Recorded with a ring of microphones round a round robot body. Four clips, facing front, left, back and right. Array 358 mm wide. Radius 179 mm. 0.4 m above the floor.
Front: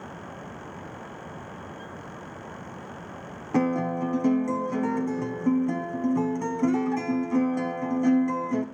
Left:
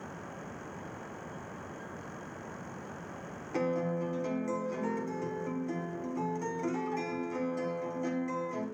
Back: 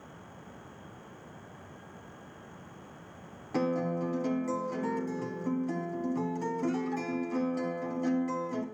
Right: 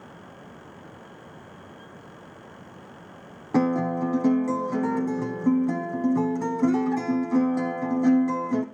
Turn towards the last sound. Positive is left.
turn(degrees=-60)